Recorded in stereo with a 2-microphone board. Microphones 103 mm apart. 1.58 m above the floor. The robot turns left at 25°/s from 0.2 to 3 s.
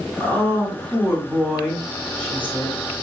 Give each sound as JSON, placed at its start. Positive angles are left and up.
{"t": 0.2, "sound": "a woman speaking", "azimuth_deg": -140, "distance_m": 3.5}